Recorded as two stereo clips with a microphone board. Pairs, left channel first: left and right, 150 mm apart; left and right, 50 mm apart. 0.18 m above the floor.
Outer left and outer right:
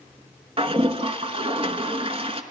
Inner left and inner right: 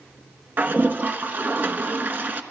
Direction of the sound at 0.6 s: 40° right (ahead or behind).